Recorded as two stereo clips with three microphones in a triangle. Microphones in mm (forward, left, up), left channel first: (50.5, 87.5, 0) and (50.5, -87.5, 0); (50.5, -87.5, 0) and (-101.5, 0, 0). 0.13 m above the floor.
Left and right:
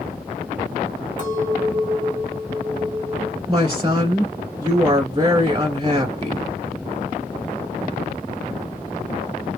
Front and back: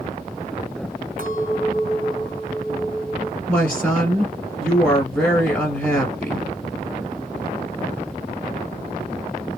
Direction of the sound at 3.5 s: 100° right.